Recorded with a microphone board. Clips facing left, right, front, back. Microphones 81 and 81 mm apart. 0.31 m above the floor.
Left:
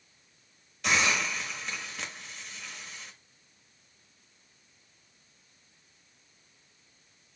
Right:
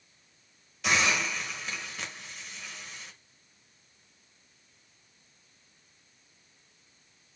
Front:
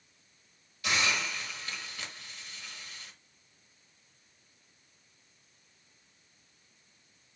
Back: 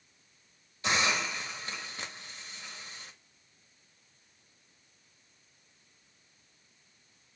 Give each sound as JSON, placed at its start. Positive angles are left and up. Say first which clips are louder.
{"t": 0.8, "sound": "a hiss", "louder": "even, back 1 dB", "azimuth_deg": 180, "distance_m": 0.9}